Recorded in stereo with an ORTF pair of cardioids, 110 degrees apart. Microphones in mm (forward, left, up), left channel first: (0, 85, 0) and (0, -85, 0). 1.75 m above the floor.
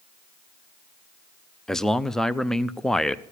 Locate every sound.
1.7 s a man speaking: 5° left, 0.7 m